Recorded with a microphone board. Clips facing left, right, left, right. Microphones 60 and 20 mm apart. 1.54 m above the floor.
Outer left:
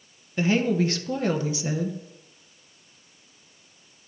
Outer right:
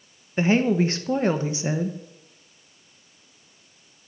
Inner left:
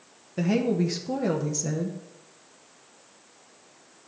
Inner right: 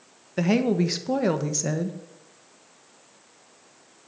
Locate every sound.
0.4 s a woman speaking: 30° right (ahead or behind), 0.7 m